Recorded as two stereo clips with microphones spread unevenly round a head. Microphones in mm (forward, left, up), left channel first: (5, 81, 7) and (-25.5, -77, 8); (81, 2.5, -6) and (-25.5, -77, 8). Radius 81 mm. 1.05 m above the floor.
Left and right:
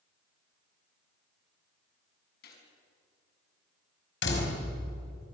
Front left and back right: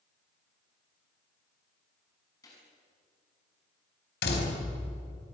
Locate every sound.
2.4 s a gunshot: 110° left, 5.5 m
4.2 s a door slam: 55° left, 5 m